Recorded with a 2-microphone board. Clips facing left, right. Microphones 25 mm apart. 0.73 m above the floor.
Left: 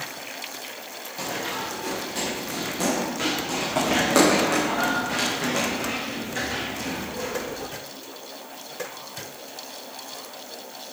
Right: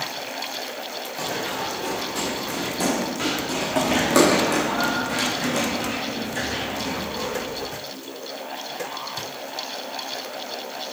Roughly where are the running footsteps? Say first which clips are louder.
Right 1 dB; centre.